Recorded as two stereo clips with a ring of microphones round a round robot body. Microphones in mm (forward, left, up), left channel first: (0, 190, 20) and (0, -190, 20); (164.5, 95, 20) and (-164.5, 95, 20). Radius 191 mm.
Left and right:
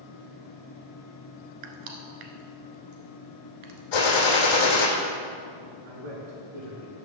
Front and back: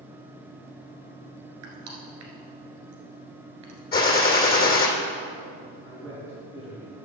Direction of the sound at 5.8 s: 85° right.